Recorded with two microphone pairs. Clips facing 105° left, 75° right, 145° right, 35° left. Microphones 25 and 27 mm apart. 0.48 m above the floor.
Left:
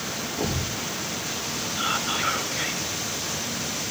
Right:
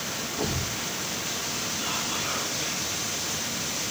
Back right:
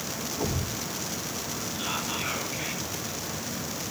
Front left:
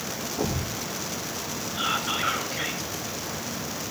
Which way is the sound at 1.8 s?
75° left.